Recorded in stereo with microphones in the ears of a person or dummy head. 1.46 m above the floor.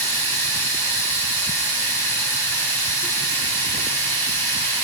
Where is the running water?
15° left (ahead or behind), 4.5 m.